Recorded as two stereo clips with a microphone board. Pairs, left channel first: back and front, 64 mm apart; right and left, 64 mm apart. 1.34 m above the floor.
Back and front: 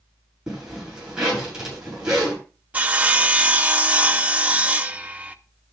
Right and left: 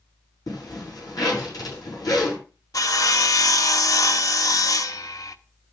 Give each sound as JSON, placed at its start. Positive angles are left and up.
{"t": 0.5, "sound": "a zipper", "azimuth_deg": -80, "distance_m": 8.0}
{"t": 2.7, "sound": "sawing", "azimuth_deg": -65, "distance_m": 0.7}